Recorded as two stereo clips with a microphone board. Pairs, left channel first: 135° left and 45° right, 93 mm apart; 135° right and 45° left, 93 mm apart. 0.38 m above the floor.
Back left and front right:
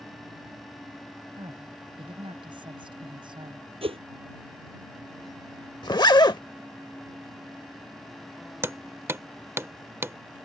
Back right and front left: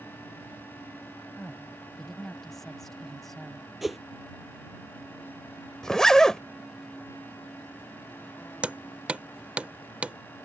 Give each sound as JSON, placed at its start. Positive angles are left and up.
{"t": 1.4, "sound": "a woman speaking", "azimuth_deg": -50}
{"t": 3.8, "sound": "a whoosh", "azimuth_deg": -45}
{"t": 5.8, "sound": "a zipper", "azimuth_deg": 140}
{"t": 8.6, "sound": "hammering", "azimuth_deg": -20}